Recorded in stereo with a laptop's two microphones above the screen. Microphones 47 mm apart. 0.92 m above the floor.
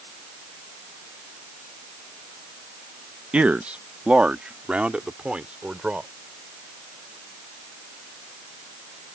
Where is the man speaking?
25° right (ahead or behind).